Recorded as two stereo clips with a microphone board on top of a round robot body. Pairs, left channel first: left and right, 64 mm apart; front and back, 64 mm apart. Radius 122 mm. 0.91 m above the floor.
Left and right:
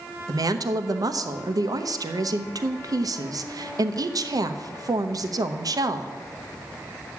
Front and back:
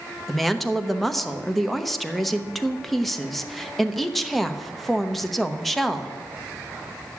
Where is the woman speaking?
90° right, 1.0 m.